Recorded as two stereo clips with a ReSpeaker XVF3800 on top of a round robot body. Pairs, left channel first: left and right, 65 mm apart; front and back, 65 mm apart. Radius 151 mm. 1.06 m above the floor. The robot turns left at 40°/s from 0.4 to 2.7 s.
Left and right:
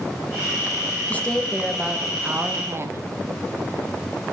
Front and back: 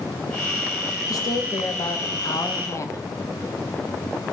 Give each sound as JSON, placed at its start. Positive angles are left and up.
{"t": 1.1, "sound": "a woman speaking", "azimuth_deg": 25, "distance_m": 1.4}